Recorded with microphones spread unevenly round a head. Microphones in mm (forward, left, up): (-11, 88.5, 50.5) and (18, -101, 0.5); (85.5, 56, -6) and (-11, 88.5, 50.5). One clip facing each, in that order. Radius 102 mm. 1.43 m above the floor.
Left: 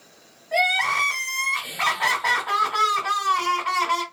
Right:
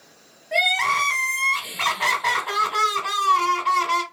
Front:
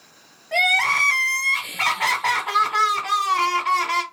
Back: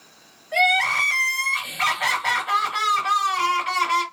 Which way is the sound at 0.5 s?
30° right.